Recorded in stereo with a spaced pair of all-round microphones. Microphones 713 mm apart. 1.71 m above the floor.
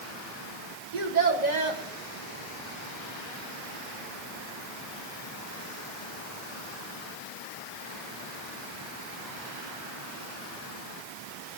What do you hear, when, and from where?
0.9 s a child speaking: 75° right (ahead or behind), 1.9 m